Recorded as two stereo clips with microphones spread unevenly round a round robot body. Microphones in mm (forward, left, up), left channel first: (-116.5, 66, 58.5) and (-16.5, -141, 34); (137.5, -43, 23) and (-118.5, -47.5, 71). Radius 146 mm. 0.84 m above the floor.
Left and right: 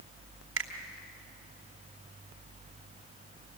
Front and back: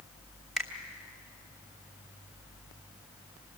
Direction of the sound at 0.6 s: 90° right.